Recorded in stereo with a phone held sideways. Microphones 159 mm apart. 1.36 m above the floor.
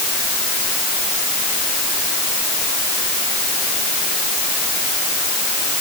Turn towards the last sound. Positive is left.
No sound to turn to.